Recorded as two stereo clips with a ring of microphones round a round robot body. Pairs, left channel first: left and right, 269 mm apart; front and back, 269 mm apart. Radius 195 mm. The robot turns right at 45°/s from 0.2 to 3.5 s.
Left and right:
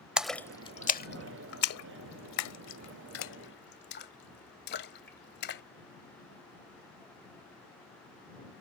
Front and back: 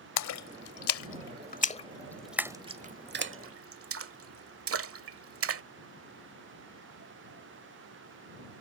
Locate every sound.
0.2 s a splash: 5° right; by 5.6 s 145° left